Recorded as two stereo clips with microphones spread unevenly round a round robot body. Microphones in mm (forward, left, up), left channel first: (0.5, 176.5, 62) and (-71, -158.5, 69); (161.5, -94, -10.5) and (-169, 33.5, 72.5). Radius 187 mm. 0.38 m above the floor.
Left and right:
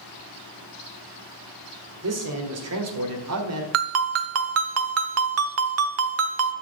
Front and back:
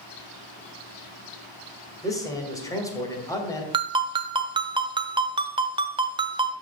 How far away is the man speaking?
About 2 m.